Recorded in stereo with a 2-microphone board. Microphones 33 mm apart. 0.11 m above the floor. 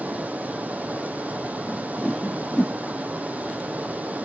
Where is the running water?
55° right (ahead or behind), 0.8 m.